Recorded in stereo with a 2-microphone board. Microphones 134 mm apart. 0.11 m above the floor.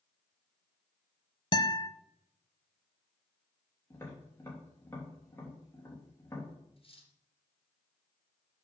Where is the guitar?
40° left (ahead or behind), 0.6 m.